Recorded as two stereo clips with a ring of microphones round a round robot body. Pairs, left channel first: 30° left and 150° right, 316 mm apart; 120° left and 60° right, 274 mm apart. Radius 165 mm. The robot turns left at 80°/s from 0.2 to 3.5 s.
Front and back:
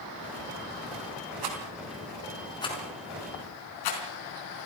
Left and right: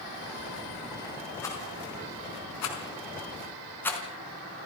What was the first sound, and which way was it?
A rattle, 155° right.